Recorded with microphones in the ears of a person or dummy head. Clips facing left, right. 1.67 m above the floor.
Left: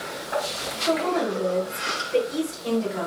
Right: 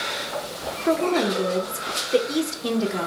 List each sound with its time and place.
0.9 s a woman speaking: 60° right (ahead or behind), 0.7 m